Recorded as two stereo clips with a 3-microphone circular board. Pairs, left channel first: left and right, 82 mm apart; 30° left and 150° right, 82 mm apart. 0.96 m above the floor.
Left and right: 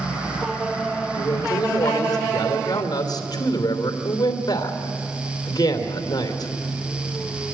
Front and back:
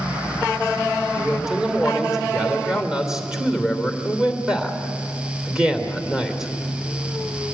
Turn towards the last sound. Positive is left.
turn(degrees=130)